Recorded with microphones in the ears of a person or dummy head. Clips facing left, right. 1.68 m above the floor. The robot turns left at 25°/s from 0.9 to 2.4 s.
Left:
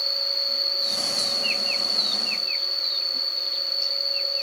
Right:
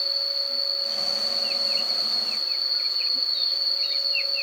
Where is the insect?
10° left, 3.5 m; by 4.4 s 25° right, 3.5 m.